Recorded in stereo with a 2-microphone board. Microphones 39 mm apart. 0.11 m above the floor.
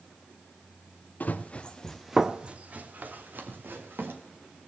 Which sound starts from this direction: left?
Running footsteps, at 1.2 s.